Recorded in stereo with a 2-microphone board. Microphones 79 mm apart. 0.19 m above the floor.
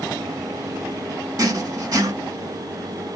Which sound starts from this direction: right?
Writing, at 1.4 s.